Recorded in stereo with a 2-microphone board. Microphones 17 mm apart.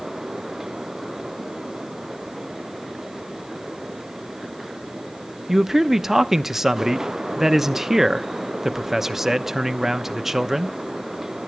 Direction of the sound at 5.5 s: 20° right (ahead or behind).